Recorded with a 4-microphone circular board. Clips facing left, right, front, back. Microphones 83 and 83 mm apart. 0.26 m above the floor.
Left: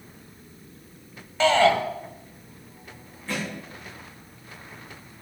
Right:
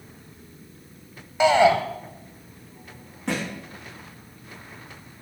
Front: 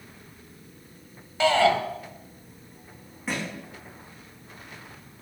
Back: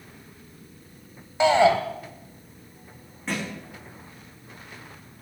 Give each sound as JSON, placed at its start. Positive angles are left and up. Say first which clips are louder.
{"t": 1.4, "sound": "a shout", "louder": "right 2 dB, back 3 dB", "azimuth_deg": -145, "distance_m": 1.5}
{"t": 3.3, "sound": "a thud", "louder": "right 3 dB, back 1 dB", "azimuth_deg": -85, "distance_m": 7.0}